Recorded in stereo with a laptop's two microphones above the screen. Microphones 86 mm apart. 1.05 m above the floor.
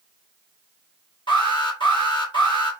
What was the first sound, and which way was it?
An alarm, 75° left (ahead or behind).